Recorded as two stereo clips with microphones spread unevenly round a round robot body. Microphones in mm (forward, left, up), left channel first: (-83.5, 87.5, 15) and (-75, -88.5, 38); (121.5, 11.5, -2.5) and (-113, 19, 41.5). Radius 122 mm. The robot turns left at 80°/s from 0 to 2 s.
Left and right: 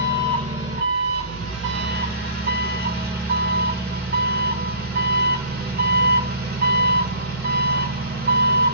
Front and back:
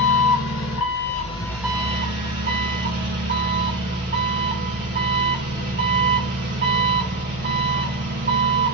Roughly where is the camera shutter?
I don't hear a camera shutter.